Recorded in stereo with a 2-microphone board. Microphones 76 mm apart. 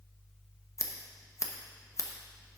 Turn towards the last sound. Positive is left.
turn(degrees=40)  # may be behind; listen again after turning